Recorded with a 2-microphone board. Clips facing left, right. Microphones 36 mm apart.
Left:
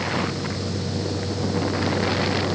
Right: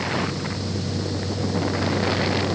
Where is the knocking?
I don't hear knocking.